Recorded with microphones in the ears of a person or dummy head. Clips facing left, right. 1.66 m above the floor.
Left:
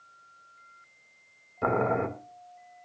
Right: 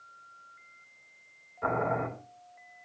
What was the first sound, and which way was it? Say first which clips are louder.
Boiling: left 4 dB; 55° left (ahead or behind).